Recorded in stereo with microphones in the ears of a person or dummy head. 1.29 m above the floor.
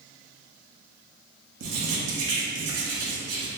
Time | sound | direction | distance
1.6 | writing | 80° right | 1.1 m